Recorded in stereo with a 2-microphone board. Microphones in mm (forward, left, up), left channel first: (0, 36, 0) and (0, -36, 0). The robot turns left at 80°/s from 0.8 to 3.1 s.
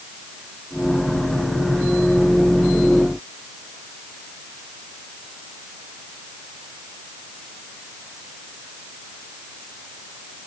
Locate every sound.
Only background noise.